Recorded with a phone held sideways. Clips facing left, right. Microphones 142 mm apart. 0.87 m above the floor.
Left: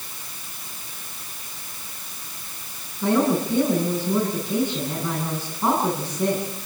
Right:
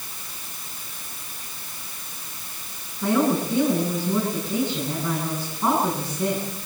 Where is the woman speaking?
5° left (ahead or behind), 10 m.